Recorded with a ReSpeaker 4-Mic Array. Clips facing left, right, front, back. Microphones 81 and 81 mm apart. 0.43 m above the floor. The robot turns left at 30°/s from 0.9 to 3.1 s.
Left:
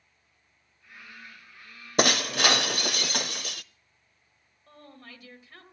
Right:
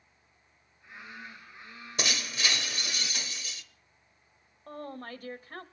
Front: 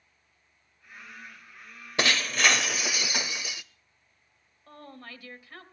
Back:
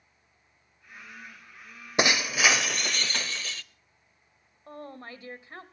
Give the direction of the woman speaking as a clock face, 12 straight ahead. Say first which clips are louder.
Right 9 dB, back 4 dB; 4 o'clock.